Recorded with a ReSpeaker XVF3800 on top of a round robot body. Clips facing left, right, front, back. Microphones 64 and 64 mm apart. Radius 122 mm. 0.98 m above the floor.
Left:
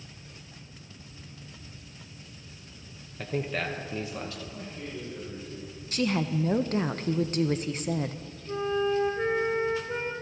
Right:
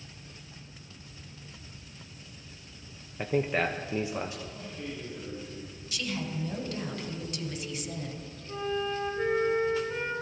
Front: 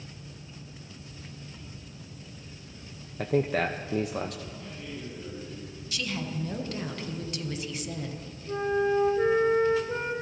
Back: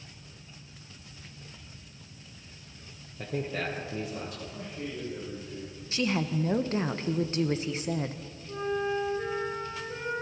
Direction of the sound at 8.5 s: 25° left.